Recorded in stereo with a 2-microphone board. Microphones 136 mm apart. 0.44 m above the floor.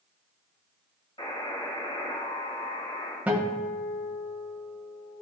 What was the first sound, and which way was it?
A buzzer, 40° left (ahead or behind).